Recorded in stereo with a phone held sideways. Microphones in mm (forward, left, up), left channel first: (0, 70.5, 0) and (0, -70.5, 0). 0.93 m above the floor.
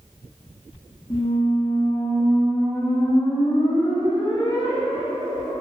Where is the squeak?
30° left (ahead or behind), 0.6 m.